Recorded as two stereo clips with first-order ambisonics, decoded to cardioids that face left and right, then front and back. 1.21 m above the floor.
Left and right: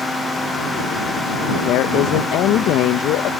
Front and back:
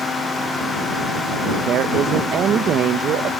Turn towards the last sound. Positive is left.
turn(degrees=130)